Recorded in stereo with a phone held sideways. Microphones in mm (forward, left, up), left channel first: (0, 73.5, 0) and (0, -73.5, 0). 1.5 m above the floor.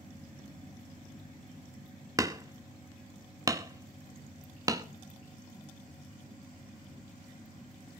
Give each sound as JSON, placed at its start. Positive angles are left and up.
{"t": 2.2, "sound": "hammering", "side_deg": -25, "distance_m": 0.9}